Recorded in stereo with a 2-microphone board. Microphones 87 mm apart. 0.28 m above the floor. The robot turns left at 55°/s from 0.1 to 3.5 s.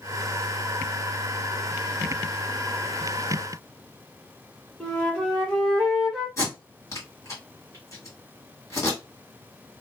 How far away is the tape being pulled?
About 1.8 m.